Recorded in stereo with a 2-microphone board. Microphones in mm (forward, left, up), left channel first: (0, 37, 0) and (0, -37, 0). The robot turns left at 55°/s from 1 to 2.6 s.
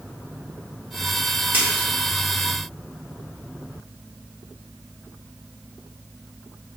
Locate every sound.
1.5 s a splash: 25° right (ahead or behind), 1.0 m